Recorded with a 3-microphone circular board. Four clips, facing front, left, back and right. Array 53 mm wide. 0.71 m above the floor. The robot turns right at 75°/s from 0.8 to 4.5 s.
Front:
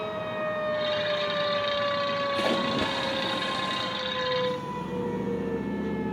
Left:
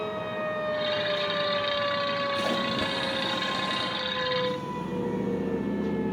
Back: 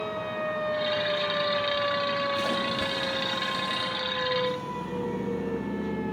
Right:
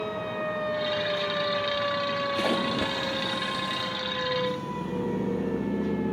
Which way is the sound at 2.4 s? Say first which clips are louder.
Right 1 dB, front 2 dB; 55° right.